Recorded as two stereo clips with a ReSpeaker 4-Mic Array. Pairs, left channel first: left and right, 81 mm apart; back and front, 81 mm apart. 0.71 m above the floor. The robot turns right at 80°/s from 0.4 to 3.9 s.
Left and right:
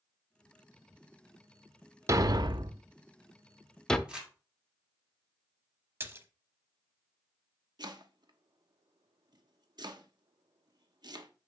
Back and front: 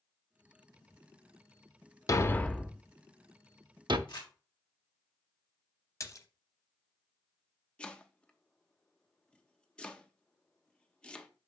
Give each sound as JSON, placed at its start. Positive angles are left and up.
{"t": 2.1, "sound": "a thud", "azimuth_deg": -135, "distance_m": 0.5}
{"t": 4.1, "sound": "crumpling", "azimuth_deg": -165, "distance_m": 2.5}
{"t": 6.0, "sound": "a splash", "azimuth_deg": -145, "distance_m": 0.8}
{"t": 7.8, "sound": "chopping", "azimuth_deg": -105, "distance_m": 0.8}